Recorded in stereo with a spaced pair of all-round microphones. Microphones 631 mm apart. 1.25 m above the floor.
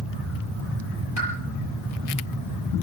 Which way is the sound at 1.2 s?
25° left (ahead or behind).